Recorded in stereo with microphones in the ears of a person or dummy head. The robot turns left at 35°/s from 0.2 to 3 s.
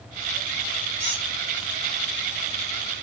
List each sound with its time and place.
1.0 s a squeak: 40° right (ahead or behind), 0.9 m; by 1.3 s 35° right (ahead or behind), 0.9 m